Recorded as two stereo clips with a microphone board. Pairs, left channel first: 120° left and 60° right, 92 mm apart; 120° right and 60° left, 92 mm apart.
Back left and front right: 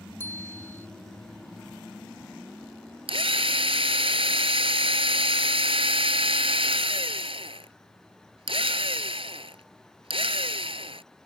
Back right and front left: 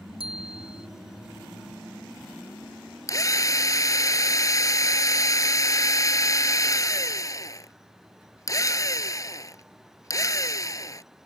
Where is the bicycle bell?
55° left.